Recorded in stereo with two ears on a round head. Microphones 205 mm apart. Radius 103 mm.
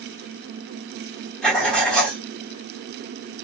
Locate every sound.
1.4 s writing: 5° left (ahead or behind), 1.1 m